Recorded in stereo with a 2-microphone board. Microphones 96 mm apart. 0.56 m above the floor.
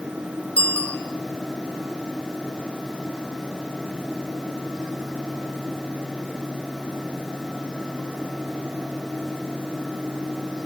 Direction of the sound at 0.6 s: 10° left (ahead or behind).